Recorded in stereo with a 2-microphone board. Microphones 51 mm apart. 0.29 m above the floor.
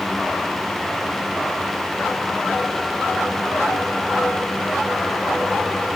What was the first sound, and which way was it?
Only background noise.